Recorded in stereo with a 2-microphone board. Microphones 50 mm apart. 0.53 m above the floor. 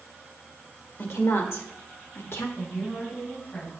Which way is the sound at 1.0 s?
55° left (ahead or behind).